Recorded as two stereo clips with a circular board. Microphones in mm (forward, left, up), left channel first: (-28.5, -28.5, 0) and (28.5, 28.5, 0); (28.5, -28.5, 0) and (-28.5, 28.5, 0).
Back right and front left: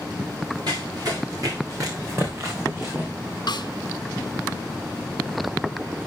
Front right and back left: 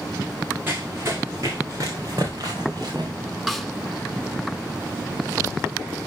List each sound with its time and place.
0.7 s running footsteps: 75° left, 2 m; by 3.1 s 100° left, 2.5 m
3.5 s a snare drum: 135° right, 0.5 m